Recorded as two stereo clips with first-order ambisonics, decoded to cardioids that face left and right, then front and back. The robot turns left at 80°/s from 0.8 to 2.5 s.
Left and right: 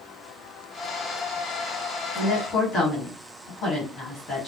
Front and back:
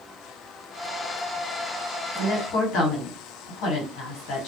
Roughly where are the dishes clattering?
I don't hear dishes clattering.